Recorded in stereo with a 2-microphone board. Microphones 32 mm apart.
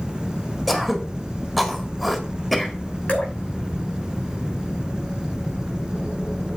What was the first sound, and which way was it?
Throat clearing, 5° left (ahead or behind).